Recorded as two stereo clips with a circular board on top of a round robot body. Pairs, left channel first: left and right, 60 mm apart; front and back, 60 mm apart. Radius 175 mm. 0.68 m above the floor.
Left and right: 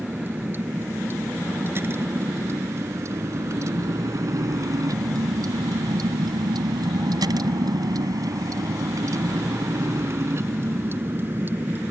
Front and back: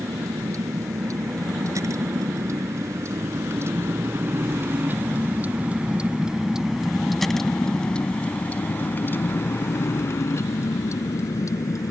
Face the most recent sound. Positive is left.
turn(degrees=-30)